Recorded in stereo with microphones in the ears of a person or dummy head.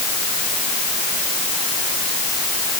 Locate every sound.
Only background noise.